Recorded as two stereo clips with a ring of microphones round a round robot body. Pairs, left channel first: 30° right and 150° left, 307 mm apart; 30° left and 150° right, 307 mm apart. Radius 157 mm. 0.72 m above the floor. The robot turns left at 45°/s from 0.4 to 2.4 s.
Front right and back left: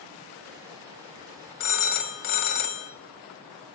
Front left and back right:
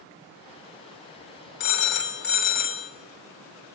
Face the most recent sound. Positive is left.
turn(degrees=-30)